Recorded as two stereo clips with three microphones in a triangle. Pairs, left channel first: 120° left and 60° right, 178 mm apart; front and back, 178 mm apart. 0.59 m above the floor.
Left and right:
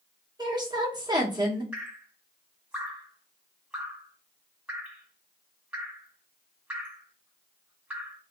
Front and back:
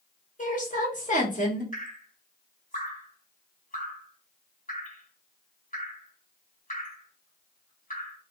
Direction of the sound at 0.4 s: 5° right.